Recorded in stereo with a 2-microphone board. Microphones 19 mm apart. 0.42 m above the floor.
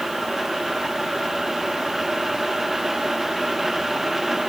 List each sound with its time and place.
Only background noise.